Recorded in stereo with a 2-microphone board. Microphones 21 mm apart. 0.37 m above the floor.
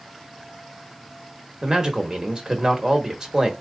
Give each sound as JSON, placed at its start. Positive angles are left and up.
{"t": 1.6, "sound": "a man speaking", "side_deg": -30, "distance_m": 1.2}